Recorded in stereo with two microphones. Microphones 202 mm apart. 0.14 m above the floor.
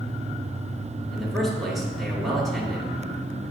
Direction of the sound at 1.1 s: Centre (ahead or behind).